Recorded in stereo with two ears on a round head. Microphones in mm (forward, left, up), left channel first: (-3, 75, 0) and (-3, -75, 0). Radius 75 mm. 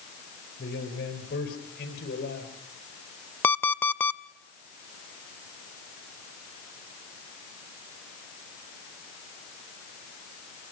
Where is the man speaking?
60° left (ahead or behind), 7 m.